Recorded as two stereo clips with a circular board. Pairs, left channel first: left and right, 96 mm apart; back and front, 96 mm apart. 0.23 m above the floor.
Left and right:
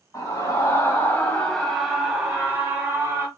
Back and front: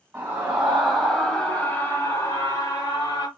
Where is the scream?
60° left, 1.6 m; by 3.3 s 150° right, 2 m.